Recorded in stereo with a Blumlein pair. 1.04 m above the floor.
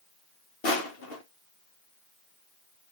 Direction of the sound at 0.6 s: 45° left.